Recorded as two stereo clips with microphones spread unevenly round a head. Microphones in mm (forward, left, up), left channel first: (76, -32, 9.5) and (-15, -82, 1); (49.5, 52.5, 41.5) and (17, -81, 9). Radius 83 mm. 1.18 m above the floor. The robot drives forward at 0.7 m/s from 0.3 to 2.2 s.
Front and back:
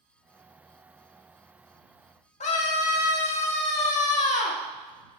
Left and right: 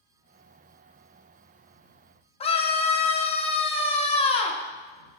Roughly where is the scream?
Ahead left.